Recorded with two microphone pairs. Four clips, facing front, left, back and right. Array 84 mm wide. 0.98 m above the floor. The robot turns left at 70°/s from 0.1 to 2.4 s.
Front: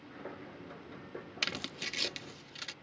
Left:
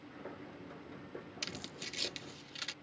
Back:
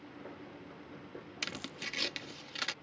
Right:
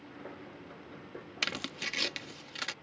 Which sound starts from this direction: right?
Tearing paper, at 1.4 s.